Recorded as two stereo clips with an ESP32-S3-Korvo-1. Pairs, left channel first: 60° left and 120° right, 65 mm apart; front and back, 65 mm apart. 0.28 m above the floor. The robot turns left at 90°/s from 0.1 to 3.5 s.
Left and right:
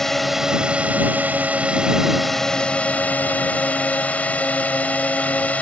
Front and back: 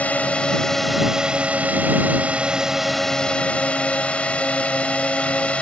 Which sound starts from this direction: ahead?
A drone, at 0.0 s.